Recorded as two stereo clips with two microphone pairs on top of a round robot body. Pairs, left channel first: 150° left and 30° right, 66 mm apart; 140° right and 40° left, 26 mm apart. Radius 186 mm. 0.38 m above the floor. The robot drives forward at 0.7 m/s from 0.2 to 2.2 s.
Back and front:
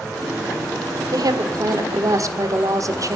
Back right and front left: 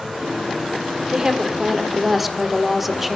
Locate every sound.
1.1 s a woman speaking: 25° right, 2 m; by 3.2 s 35° right, 1.6 m